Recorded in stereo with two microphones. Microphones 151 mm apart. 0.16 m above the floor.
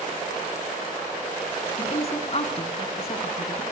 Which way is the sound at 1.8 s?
40° left (ahead or behind).